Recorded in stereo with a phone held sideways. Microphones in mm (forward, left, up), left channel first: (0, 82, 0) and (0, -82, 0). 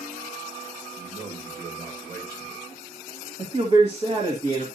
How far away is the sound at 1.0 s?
About 3 m.